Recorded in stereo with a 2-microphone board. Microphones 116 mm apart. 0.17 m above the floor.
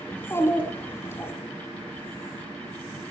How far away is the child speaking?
About 0.9 m.